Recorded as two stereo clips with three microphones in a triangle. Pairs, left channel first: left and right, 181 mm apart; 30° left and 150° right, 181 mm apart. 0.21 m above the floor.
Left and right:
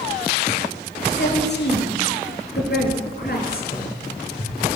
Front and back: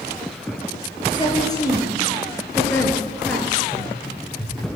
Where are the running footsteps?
120° left, 8 m.